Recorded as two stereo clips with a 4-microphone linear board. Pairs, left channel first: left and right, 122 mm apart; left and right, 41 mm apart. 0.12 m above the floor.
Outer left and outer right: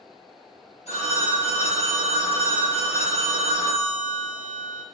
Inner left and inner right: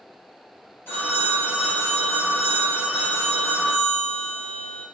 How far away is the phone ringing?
About 1.6 m.